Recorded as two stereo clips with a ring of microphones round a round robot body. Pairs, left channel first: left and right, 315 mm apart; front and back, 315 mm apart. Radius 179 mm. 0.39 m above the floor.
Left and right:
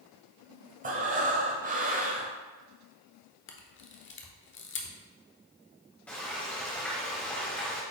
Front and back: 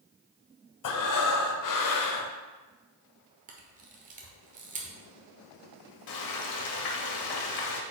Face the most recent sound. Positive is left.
turn(degrees=5)